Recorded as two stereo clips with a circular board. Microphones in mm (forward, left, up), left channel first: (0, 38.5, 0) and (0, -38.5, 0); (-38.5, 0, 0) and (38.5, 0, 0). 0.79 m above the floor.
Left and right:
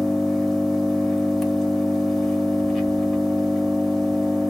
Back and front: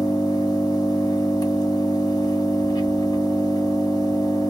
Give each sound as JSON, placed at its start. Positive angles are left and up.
{"t": 0.0, "sound": "an engine running", "azimuth_deg": 180, "distance_m": 1.3}